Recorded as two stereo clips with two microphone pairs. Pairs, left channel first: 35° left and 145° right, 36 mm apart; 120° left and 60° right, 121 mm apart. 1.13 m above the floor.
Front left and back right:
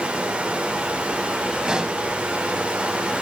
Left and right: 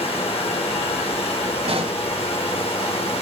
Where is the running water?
155° left, 3 m.